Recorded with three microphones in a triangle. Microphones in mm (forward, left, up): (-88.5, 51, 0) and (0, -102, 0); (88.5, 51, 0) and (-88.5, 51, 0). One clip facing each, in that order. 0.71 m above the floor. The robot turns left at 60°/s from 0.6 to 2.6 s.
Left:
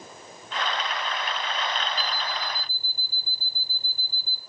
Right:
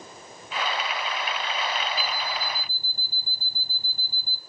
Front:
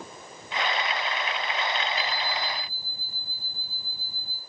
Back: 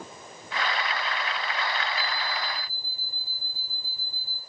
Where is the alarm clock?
20° left, 3 m; by 4.4 s 20° right, 3 m.